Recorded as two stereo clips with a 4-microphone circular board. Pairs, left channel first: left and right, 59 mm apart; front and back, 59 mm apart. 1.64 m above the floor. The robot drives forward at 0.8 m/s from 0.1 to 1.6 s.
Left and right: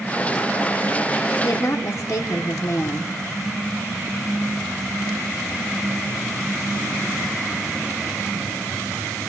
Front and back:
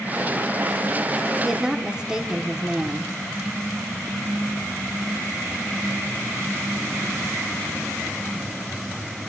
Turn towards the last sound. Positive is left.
turn(degrees=105)